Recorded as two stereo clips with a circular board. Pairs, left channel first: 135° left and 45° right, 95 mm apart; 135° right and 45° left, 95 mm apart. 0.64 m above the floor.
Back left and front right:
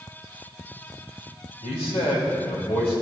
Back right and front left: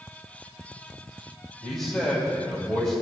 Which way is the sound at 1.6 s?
135° left.